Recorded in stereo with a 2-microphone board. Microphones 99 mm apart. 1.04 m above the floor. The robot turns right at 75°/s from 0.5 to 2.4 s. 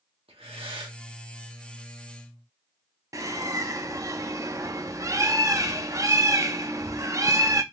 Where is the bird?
35° right (ahead or behind), 0.5 m.